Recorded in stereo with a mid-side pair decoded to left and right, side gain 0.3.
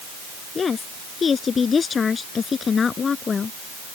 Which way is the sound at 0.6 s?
60° left.